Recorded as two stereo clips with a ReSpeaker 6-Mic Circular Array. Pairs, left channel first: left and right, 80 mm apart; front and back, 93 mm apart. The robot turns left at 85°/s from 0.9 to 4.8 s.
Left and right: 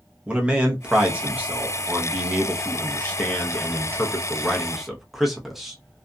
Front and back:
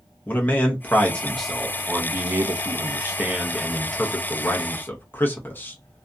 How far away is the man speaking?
About 0.7 m.